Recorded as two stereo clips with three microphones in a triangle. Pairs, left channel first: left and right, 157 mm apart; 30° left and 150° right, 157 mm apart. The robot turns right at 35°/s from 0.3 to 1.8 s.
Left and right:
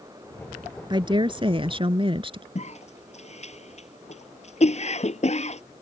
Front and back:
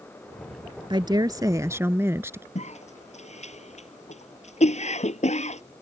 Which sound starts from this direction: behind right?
A woman speaking, at 0.9 s.